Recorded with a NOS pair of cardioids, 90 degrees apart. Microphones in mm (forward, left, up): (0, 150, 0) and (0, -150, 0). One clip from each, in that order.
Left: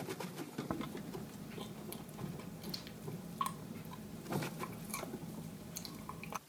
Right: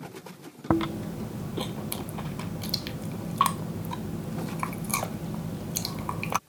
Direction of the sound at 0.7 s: 70° right.